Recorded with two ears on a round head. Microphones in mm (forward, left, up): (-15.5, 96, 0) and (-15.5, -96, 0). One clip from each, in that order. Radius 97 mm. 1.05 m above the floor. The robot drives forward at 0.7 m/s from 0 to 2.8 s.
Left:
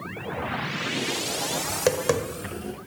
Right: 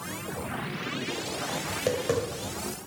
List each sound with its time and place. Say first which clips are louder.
1.7 s tapping: left 4 dB; 55° left (ahead or behind), 1.4 m; by 2.7 s 40° left (ahead or behind), 1.8 m